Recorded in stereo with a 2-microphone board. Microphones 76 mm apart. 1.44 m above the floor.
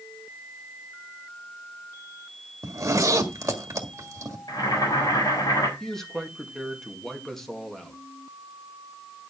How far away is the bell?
No bell in this recording.